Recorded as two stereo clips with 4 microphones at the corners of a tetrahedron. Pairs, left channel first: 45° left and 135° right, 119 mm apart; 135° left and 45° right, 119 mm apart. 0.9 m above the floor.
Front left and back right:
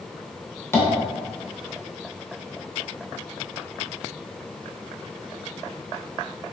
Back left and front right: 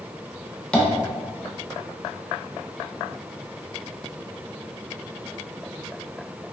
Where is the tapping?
65° left, 0.6 m.